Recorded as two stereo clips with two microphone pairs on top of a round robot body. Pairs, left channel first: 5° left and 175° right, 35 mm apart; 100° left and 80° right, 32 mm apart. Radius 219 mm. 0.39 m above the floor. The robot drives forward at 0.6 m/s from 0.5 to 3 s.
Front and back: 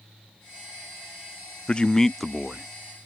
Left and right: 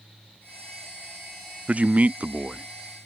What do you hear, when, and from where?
1.7 s a man speaking: 45° right; by 2.7 s 130° right